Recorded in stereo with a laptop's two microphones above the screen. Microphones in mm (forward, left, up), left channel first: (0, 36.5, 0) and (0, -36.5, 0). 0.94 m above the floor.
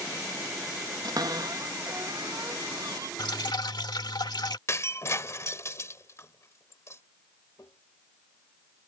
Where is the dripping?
80° left.